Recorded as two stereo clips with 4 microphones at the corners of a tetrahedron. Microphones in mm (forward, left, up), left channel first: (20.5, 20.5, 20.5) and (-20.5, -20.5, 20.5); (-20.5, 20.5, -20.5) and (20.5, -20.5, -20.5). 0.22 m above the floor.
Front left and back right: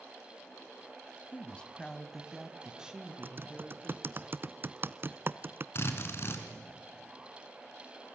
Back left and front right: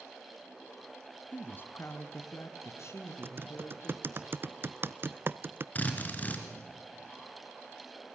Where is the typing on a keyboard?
90° right, 0.6 m.